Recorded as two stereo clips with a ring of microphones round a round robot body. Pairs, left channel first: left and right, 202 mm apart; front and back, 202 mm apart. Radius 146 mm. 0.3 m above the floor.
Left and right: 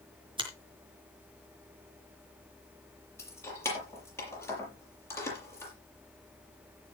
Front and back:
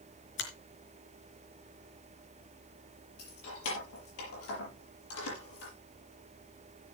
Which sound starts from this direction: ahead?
Keys jangling, at 3.2 s.